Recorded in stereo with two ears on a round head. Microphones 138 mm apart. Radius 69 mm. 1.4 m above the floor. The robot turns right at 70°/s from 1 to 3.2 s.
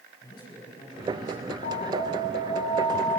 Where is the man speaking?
30° left, 8.5 m; by 1.5 s 65° left, 8.5 m.